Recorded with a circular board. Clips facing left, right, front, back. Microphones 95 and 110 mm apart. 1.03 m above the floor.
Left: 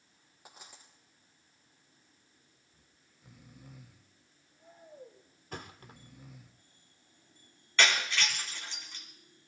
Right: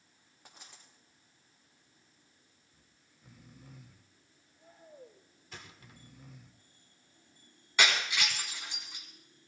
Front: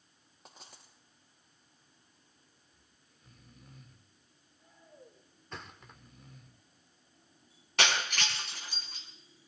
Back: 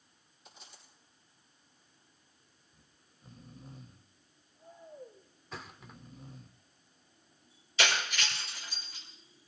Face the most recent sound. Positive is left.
turn(degrees=-15)